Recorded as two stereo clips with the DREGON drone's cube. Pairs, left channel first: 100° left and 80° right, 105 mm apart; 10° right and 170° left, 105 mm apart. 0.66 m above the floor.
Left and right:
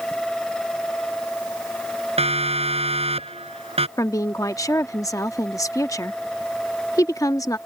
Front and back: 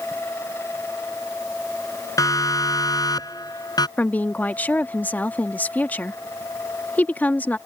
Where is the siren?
65° right; by 3.9 s 60° right.